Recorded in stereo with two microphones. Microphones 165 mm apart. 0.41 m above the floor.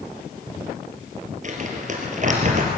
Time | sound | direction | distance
1.4 | crumpling | 50° right (ahead or behind) | 4 m